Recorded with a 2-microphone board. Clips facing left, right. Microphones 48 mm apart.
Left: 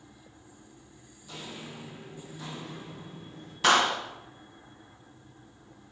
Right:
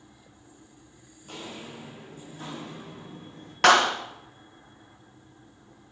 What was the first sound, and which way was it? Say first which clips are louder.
Footsteps: right 2 dB; 50° right (ahead or behind).